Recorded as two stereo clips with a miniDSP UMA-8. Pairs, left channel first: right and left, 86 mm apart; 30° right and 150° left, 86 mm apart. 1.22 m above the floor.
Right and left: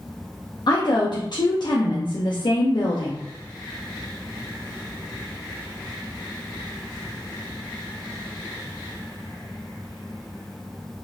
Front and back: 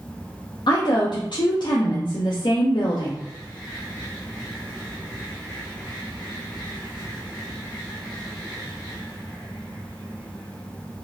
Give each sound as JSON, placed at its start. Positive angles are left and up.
{"t": 0.7, "sound": "a woman speaking", "azimuth_deg": -60, "distance_m": 0.6}